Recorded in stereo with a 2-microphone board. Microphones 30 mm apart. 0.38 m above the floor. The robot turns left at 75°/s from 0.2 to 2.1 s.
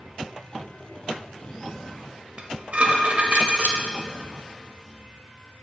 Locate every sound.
2.4 s dishes clattering: 50° right (ahead or behind), 0.9 m